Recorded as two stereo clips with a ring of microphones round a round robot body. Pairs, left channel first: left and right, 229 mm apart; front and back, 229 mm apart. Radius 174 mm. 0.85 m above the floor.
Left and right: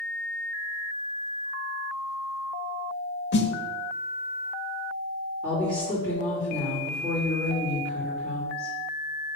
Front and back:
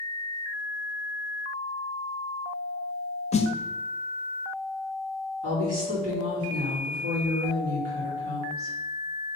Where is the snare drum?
60° left, 0.6 m.